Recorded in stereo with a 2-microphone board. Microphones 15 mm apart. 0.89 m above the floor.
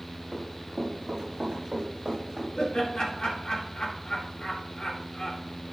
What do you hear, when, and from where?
0.3 s running footsteps: 40° right (ahead or behind), 5 m; by 2.5 s 55° right (ahead or behind), 5 m
2.6 s laughter: 55° left (ahead or behind), 2 m